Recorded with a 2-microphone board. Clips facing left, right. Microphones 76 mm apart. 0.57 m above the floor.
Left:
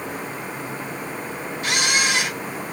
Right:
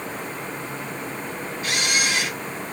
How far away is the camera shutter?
About 1.0 m.